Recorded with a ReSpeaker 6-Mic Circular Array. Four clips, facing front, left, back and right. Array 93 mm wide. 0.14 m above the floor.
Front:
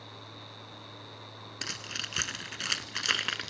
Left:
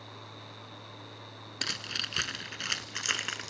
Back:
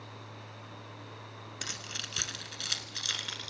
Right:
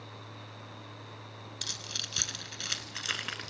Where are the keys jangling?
70° left, 1.3 m; by 3.5 s 10° left, 1.5 m.